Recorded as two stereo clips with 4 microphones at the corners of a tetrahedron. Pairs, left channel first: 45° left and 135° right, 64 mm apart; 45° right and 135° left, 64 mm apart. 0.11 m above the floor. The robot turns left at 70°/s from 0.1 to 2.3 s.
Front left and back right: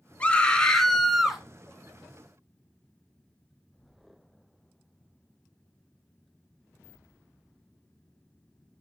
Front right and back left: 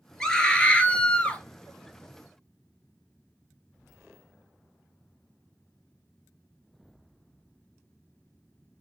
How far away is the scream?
About 1.1 m.